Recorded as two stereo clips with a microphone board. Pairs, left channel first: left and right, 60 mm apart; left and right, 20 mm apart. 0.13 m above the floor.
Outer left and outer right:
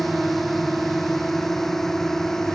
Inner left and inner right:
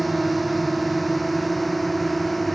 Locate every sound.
0.0 s a drone: 5° left (ahead or behind); by 2.6 s 10° left (ahead or behind)